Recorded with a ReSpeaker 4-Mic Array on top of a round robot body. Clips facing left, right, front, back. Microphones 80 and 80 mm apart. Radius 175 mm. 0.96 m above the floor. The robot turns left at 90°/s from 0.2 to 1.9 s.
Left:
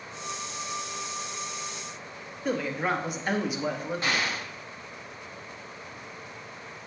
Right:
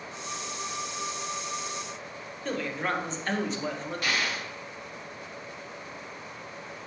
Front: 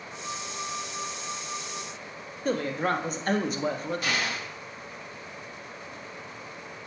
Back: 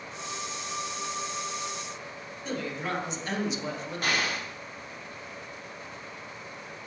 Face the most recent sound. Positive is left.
turn(degrees=145)